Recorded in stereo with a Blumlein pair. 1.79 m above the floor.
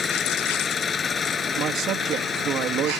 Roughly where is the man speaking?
Ahead right.